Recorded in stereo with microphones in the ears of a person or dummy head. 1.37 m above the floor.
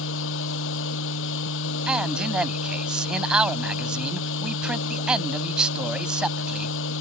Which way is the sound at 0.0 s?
70° left (ahead or behind).